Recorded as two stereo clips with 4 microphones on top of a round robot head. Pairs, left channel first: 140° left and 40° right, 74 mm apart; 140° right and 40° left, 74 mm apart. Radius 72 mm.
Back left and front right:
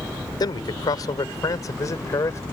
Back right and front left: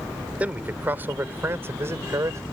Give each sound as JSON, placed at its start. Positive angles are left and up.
{"t": 0.4, "sound": "a man speaking", "azimuth_deg": 110}